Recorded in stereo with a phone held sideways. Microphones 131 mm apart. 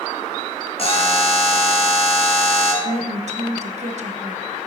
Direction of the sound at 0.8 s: 45° left (ahead or behind).